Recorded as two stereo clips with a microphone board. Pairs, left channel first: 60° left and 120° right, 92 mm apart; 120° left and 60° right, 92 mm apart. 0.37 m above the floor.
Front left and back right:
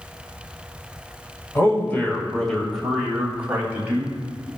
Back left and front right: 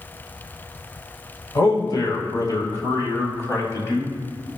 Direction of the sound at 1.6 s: 110° left.